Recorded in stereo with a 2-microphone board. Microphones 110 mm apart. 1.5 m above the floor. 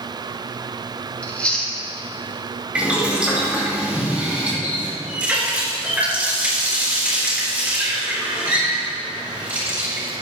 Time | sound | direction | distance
1.2 | chewing | 10° left (ahead or behind) | 1.7 m
2.8 | boiling | 10° right (ahead or behind) | 3.5 m
4.6 | a running tap | 15° right (ahead or behind) | 3.5 m